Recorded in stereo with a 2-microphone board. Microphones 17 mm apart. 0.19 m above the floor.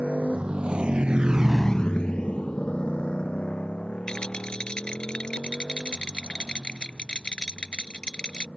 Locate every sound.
0.0 s a motorcycle: 80° right; by 8.6 s 85° left
4.1 s a rattle: 55° left (ahead or behind)